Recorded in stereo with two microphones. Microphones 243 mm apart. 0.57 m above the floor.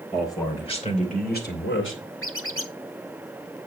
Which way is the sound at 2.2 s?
60° left (ahead or behind).